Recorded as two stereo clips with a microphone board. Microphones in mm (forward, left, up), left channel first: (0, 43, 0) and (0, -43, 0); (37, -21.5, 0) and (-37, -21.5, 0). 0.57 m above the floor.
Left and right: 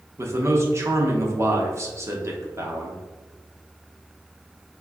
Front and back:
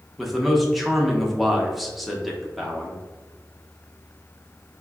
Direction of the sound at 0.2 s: 90° right.